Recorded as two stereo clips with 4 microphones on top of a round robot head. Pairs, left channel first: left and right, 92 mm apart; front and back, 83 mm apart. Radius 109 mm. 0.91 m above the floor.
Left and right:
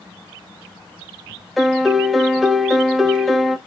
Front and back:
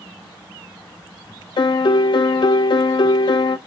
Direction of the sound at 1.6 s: Straight ahead.